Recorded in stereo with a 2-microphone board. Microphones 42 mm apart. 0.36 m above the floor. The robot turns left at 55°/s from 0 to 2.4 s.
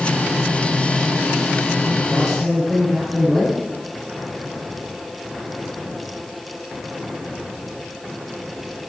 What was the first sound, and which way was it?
A man speaking, 15° right (ahead or behind).